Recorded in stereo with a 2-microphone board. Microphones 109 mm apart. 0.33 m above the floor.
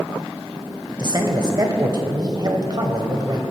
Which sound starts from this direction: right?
A man speaking, at 1.0 s.